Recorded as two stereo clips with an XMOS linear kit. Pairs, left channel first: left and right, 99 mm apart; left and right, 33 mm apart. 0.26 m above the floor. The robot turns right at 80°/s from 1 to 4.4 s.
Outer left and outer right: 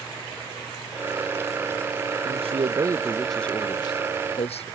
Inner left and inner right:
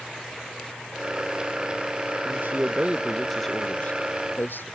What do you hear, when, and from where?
2.2 s a man speaking: 85° right; by 4.7 s 85° left